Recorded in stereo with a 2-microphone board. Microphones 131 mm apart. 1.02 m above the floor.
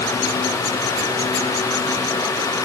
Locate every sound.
Only background noise.